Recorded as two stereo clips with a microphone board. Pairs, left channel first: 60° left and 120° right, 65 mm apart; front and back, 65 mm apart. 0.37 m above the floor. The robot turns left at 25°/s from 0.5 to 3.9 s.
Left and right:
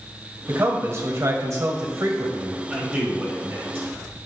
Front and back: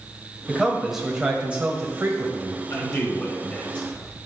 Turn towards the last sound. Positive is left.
turn(degrees=-75)